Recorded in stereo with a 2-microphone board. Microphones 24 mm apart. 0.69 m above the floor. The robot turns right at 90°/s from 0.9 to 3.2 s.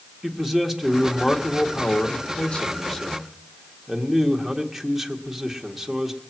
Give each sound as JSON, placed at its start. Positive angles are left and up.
{"t": 0.2, "sound": "a man speaking", "azimuth_deg": -15, "distance_m": 1.7}